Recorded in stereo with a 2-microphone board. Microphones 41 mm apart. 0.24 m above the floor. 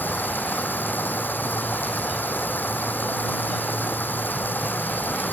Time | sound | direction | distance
0.0 | running water | 60° left (ahead or behind) | ?